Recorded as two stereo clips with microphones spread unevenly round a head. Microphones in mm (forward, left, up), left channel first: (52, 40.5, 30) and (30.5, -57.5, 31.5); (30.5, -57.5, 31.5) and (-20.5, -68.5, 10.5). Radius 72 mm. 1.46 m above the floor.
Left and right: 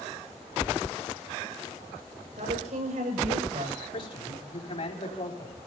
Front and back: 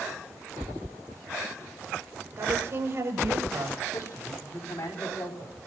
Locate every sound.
2.4 s a woman speaking: 120° right, 6.5 m; by 3.8 s 125° right, 7 m
3.9 s a man speaking: 45° left, 5 m